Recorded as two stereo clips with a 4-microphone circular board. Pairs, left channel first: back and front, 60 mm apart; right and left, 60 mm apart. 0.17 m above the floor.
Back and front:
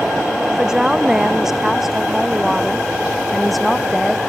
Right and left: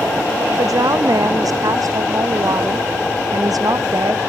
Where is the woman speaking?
80° left; by 4.2 s 90° left.